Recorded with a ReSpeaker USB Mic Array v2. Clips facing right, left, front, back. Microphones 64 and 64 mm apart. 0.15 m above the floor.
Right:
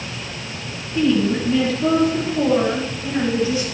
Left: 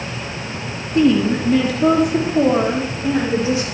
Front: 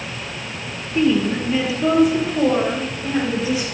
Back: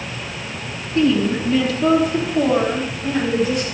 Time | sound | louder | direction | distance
0.9 | a woman speaking | left 3 dB, back 1 dB | 70° left | 2.5 m